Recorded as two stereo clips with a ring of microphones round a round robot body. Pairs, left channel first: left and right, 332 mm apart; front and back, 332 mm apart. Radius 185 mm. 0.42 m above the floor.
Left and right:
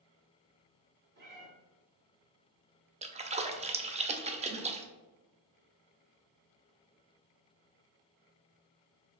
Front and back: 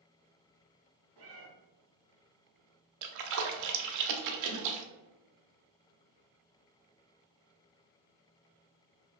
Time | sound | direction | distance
1.2 | a cat meowing | 150° right | 1.7 m
3.0 | a splash | 160° right | 0.6 m